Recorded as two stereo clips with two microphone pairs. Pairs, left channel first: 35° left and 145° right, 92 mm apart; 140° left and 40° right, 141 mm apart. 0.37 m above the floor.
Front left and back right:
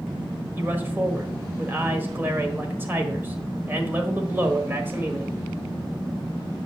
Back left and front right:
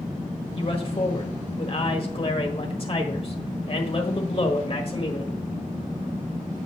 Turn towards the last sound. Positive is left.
turn(degrees=155)